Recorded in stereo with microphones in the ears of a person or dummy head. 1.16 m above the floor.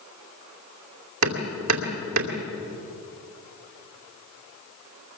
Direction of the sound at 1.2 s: 80° right.